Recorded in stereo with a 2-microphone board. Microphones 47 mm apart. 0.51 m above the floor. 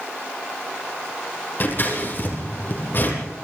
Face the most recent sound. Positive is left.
turn(degrees=45)  # may be behind; listen again after turning